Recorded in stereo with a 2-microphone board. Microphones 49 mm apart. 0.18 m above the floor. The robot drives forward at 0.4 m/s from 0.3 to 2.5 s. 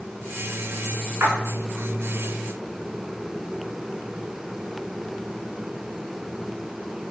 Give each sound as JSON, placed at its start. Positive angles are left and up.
{"t": 1.2, "sound": "a splash", "side_deg": -55, "distance_m": 0.7}